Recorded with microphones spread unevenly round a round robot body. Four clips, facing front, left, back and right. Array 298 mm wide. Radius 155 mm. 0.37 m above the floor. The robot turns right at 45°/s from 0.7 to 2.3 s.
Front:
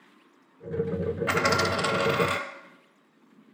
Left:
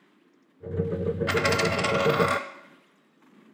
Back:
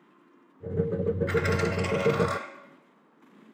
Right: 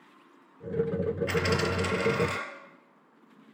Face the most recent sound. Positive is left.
turn(degrees=75)